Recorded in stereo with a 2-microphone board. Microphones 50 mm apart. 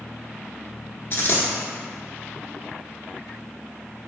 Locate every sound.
1.1 s a dropped coin: 50° left (ahead or behind), 0.8 m